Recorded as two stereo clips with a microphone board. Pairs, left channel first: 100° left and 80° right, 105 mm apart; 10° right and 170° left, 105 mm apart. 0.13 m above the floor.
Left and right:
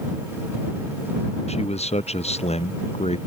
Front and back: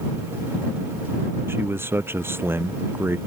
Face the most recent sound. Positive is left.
turn(degrees=100)